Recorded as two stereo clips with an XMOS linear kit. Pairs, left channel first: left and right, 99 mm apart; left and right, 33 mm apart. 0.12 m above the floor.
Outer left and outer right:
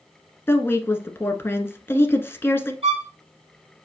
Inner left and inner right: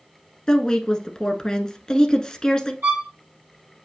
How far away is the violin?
About 3 m.